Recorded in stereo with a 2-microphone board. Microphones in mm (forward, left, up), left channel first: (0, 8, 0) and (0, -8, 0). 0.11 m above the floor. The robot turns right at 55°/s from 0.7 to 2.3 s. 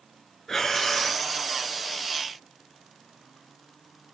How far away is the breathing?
About 0.7 m.